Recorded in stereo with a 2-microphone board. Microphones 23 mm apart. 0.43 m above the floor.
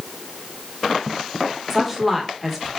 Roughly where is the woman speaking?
Centre.